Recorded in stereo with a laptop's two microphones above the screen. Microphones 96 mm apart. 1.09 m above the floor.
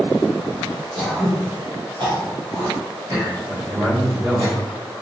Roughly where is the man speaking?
Right.